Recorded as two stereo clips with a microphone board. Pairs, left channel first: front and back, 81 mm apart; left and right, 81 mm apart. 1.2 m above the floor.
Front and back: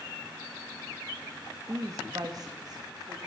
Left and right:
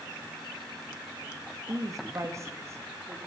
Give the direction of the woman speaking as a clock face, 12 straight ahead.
4 o'clock.